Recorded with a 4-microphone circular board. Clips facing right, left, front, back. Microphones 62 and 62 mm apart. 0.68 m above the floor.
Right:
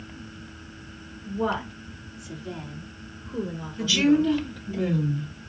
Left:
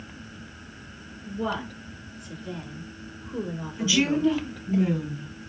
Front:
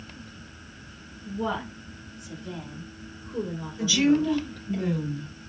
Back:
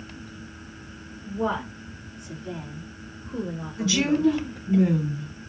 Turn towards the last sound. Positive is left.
turn(degrees=165)